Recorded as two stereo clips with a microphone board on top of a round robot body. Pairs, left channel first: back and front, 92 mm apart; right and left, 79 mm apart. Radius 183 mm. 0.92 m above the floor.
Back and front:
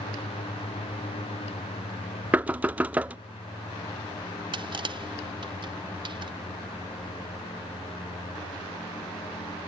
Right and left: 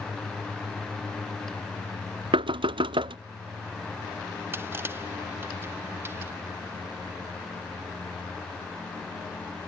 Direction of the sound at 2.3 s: 75° left.